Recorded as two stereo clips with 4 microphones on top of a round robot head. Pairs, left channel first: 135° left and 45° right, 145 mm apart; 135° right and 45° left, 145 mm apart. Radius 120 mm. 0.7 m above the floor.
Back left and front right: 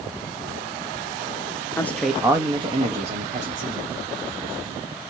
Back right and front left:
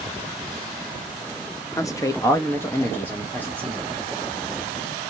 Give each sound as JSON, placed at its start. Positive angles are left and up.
{"t": 1.8, "sound": "a man speaking", "azimuth_deg": -175, "distance_m": 0.9}